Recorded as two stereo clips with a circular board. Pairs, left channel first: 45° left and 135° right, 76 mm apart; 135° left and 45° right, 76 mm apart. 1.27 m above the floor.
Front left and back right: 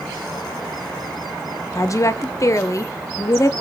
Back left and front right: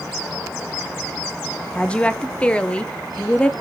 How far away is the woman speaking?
About 0.7 m.